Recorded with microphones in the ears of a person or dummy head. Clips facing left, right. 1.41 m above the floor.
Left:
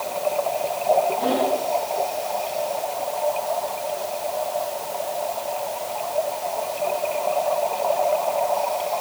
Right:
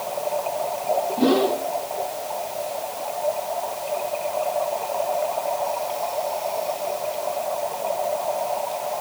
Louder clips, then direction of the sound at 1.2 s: Right 3 dB; 60° right (ahead or behind).